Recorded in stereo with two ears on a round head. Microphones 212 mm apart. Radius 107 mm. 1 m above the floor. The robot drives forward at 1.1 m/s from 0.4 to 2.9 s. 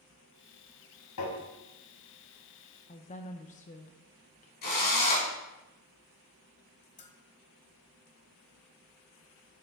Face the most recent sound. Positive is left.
turn(degrees=30)  # may be behind; listen again after turning